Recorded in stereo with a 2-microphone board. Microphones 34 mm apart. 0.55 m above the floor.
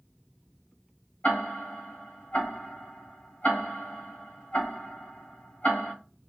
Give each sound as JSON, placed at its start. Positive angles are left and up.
{"t": 1.2, "sound": "ticking", "side_deg": 60, "distance_m": 3.0}